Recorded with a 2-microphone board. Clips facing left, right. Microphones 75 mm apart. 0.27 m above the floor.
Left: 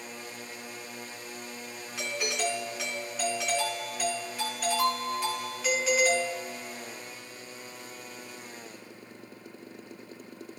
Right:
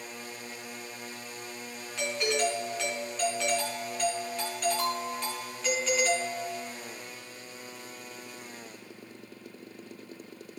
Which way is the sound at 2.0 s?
5° left (ahead or behind).